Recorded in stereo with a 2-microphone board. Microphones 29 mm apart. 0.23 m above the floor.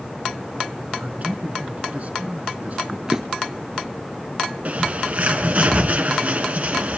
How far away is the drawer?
About 2 m.